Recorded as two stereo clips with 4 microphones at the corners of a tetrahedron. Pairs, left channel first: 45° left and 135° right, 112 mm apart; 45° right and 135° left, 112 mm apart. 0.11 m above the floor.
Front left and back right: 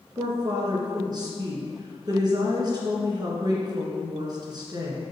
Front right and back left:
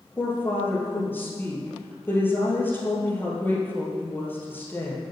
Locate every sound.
0.2 s a woman speaking: 110° right, 2 m